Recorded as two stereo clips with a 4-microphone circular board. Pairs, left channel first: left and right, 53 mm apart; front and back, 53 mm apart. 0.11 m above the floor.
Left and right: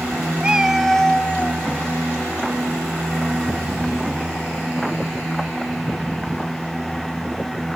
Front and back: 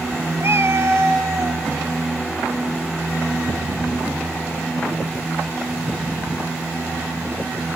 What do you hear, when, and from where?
0.4 s a cat meowing: 155° right, 0.7 m; by 1.6 s 150° left, 0.9 m